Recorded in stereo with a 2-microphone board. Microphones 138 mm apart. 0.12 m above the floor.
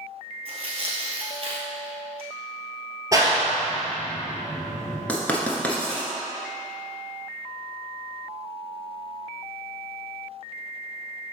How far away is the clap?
About 1.5 m.